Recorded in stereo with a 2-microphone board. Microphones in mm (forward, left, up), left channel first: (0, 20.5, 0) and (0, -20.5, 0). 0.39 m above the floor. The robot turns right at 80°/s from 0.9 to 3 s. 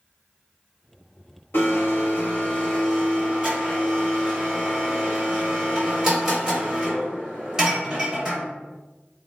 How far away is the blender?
About 0.9 m.